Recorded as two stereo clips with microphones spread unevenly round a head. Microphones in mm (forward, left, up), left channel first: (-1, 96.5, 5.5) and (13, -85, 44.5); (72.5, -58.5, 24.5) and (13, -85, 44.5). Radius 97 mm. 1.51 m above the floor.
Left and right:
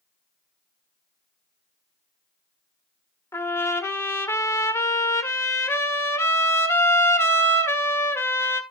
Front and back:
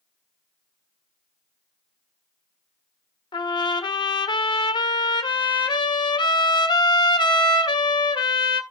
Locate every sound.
3.3 s a trumpet: 15° left, 1.3 m